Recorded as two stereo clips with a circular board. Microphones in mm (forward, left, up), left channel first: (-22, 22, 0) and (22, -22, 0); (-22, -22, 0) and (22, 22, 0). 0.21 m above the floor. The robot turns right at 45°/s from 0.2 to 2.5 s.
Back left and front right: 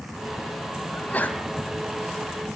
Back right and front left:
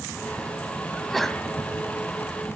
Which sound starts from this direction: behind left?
A sneeze, at 0.9 s.